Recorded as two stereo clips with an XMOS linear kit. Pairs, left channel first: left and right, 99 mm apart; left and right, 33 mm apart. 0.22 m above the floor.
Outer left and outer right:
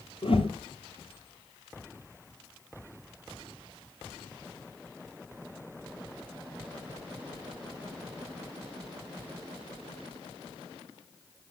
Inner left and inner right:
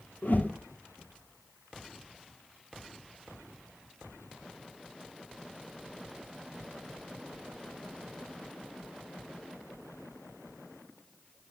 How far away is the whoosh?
About 2.5 m.